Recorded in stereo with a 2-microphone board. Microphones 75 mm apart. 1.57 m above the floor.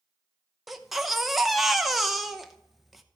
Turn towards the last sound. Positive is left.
turn(degrees=0)  # may be behind; listen again after turning